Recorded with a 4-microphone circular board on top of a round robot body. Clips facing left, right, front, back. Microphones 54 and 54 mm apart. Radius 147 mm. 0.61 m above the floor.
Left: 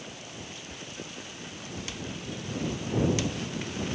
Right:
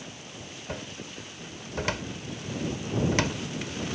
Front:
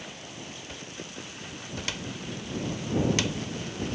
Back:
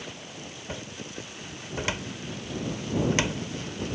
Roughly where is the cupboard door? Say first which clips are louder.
Right 3 dB, back 3 dB; behind right.